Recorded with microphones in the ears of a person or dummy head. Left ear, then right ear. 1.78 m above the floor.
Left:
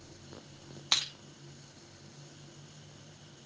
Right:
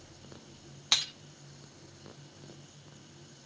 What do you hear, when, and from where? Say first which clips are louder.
0.9 s breaking glass: right 2 dB; 5° left (ahead or behind), 0.8 m